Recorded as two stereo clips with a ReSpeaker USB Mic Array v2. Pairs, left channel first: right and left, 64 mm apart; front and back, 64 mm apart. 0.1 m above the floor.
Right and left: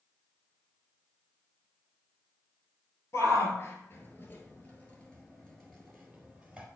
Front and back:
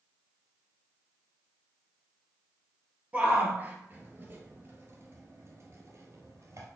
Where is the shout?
115° right, 2.5 m; by 6.7 s 175° left, 2.5 m.